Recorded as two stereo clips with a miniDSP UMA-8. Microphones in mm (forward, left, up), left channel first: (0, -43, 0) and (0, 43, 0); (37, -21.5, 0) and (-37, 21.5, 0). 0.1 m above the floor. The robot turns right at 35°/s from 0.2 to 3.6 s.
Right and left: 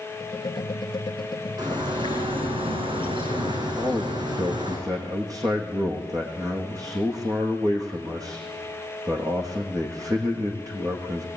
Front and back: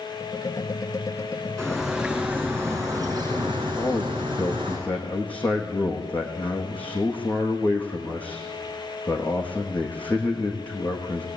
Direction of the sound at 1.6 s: 50° left.